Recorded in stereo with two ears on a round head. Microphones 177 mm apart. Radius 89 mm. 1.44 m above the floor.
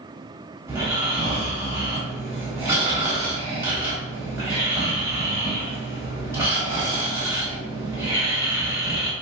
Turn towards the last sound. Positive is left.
turn(degrees=-15)  # may be behind; listen again after turning